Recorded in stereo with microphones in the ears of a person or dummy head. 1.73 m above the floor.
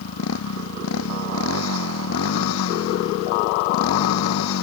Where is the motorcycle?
80° left.